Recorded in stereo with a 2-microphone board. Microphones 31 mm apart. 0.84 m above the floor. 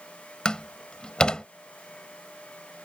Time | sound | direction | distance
0.5 | a door slam | 25° left (ahead or behind) | ?